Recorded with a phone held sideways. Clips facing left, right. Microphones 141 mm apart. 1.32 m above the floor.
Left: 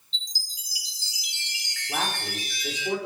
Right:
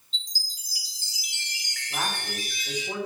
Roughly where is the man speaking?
Left.